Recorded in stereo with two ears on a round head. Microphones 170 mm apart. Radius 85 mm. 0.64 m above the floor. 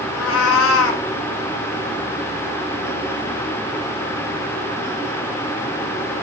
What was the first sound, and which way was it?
A cat meowing, 70° left (ahead or behind).